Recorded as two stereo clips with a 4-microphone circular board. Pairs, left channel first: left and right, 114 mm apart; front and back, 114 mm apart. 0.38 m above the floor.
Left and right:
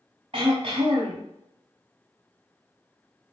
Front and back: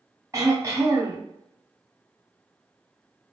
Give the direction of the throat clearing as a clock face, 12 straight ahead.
4 o'clock.